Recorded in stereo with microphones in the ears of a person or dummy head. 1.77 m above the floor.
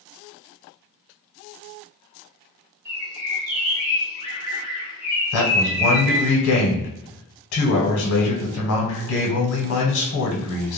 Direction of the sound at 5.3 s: 70° left (ahead or behind).